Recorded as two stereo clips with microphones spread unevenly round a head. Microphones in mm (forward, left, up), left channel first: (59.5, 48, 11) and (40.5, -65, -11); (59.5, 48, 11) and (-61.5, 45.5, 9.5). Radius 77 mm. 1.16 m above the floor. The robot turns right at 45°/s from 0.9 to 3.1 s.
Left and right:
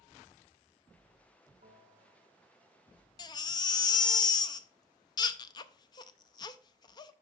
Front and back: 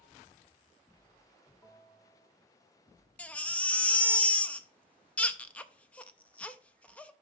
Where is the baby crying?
75° left, 0.5 m.